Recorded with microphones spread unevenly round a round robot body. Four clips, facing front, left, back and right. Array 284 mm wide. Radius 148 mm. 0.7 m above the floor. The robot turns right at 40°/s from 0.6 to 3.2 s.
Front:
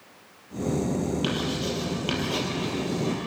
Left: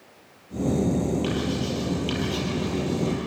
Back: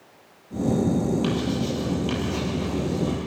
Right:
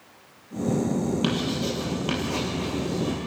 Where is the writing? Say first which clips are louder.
Even, back 3 dB; 85° right, 9.5 m; by 3.2 s 5° right, 9.5 m.